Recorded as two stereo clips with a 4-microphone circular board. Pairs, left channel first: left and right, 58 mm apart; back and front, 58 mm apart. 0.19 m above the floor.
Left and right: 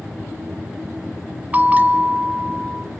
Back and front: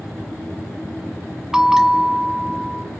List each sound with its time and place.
1.5 s a bell: 70° right, 1.1 m